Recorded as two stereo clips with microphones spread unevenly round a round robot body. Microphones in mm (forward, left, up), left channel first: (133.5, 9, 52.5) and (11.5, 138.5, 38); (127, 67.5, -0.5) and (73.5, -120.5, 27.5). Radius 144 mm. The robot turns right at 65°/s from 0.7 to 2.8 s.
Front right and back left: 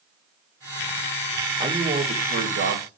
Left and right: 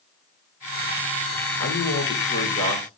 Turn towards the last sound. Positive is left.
turn(degrees=155)